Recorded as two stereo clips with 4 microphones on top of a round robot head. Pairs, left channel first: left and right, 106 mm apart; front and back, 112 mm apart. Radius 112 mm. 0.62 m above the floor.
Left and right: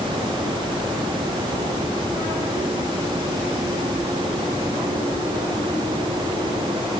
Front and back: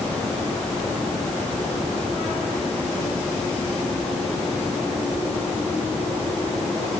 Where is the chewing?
I don't hear chewing.